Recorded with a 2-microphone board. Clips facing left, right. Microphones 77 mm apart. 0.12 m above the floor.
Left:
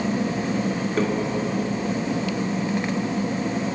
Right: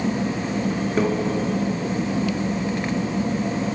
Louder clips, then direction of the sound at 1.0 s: Right 2 dB; 5° right (ahead or behind).